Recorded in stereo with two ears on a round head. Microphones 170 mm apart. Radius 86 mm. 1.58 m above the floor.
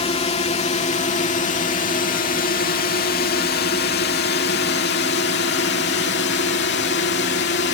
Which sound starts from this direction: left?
A drone, at 0.0 s.